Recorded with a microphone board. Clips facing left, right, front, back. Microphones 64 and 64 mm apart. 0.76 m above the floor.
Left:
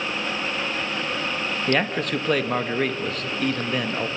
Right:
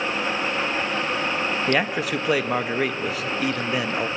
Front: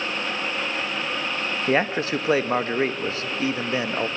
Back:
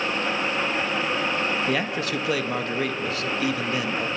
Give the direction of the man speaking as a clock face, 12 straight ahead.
12 o'clock.